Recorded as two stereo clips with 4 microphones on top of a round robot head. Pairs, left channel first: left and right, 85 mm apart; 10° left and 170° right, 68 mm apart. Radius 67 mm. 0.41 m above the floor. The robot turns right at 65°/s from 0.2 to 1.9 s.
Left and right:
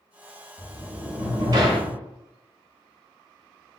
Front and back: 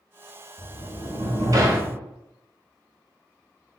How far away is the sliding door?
About 1.1 m.